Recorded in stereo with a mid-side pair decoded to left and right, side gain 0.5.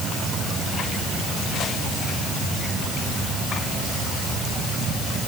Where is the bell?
No bell in this recording.